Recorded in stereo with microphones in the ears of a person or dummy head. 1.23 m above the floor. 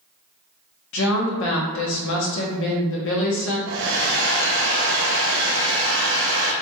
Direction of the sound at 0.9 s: 70° left (ahead or behind).